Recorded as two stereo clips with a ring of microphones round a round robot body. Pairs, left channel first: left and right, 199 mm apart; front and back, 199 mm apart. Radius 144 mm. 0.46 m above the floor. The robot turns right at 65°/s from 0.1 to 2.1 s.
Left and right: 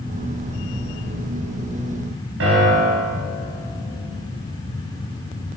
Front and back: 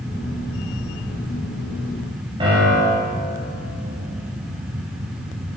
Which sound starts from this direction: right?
A piano, at 2.4 s.